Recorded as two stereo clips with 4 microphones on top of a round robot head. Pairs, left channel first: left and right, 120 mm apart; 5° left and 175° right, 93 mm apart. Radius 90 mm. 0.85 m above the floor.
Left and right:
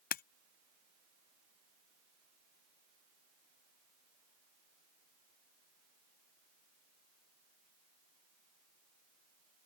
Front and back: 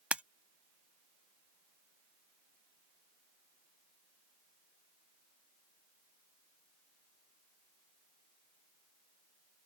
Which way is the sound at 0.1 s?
105° left.